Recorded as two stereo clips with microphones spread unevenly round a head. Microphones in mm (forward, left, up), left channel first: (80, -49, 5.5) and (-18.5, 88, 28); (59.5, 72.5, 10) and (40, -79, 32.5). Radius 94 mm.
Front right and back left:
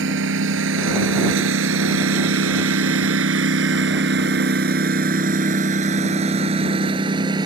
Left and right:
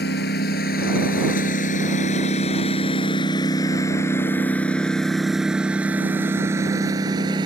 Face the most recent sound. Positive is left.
turn(degrees=-165)